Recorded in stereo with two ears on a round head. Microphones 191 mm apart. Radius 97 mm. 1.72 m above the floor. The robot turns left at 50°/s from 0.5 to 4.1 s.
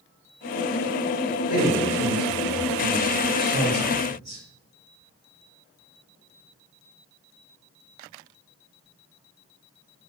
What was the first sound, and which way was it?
A man speaking, 95° left.